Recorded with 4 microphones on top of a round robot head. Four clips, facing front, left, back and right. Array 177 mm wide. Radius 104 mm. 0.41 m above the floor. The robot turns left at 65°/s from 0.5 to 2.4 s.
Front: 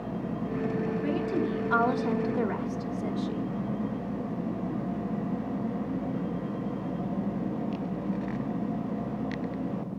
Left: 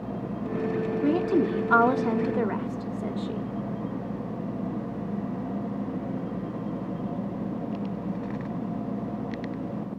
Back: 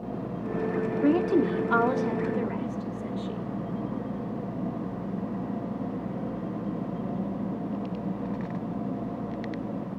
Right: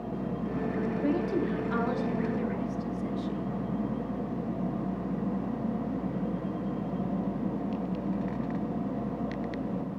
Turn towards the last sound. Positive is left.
turn(degrees=70)